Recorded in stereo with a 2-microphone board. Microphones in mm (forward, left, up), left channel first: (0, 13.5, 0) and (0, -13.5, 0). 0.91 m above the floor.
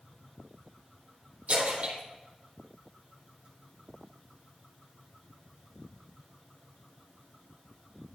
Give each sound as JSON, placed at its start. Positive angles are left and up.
{"t": 1.5, "sound": "a splash", "side_deg": -70, "distance_m": 5.0}